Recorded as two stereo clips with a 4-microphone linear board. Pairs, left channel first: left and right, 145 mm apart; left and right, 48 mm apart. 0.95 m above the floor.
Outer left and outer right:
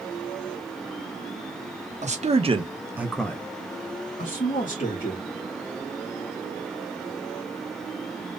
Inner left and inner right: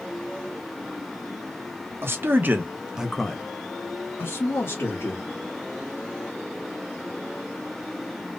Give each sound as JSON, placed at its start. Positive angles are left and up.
{"t": 2.0, "sound": "a man speaking", "side_deg": -55, "distance_m": 1.1}